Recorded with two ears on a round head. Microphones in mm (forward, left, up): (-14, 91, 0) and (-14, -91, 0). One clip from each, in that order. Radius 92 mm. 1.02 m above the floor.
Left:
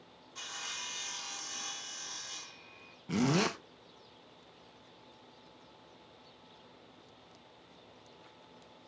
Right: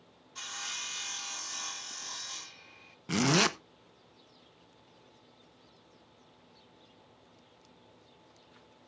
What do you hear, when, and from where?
0.3 s sawing: 10° right (ahead or behind), 0.8 m
3.1 s a zipper: 35° right (ahead or behind), 0.8 m